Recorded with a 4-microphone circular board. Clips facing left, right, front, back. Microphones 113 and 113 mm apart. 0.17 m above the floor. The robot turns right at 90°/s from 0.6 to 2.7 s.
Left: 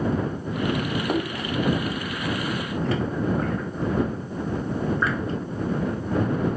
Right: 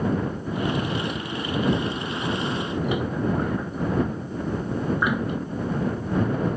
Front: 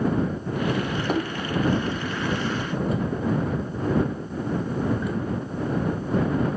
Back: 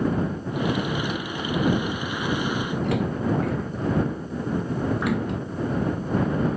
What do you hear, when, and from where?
1.1 s a splash: 50° left; by 5.4 s 165° right